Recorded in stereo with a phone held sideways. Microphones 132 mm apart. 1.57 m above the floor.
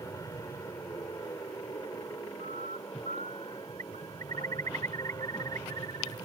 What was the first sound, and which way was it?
An aircraft, 25° left (ahead or behind).